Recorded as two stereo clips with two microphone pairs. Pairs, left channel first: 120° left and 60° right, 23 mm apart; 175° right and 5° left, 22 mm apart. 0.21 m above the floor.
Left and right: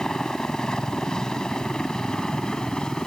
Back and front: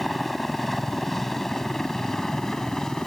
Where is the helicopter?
100° left; by 3.1 s 145° left.